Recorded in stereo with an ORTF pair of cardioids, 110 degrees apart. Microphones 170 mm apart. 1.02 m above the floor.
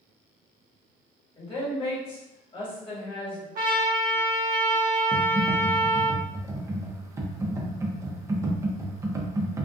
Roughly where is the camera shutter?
No camera shutter in this recording.